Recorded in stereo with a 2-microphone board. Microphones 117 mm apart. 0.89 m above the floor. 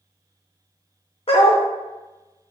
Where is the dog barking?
55° left (ahead or behind), 0.7 m.